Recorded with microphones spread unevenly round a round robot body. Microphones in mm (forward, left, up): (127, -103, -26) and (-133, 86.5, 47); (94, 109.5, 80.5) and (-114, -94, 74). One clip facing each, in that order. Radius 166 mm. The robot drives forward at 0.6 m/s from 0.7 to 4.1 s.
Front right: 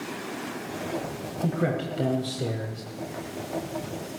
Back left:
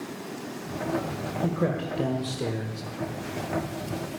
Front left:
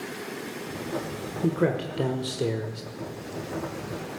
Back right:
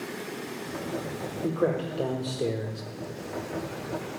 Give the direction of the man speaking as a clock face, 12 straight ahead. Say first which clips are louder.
Front right 1 dB, front left 2 dB; 11 o'clock.